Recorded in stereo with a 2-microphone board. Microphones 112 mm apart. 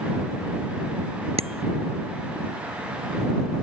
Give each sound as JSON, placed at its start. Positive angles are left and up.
{"t": 1.4, "sound": "a bicycle bell", "side_deg": -75}